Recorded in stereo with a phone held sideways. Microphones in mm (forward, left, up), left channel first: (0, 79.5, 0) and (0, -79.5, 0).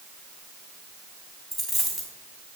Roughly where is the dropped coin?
Centre.